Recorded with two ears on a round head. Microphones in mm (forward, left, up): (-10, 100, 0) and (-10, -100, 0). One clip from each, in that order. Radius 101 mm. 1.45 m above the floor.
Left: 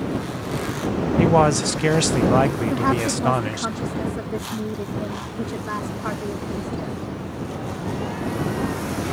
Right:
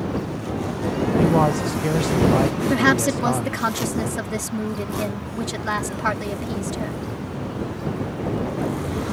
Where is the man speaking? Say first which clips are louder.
Left 3 dB; 55° left (ahead or behind).